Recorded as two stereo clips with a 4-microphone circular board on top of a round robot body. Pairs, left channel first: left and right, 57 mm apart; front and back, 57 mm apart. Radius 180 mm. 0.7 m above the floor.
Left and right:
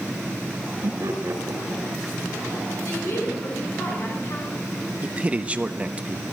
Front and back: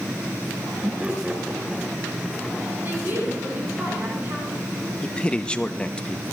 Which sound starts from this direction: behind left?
A woman speaking, at 2.8 s.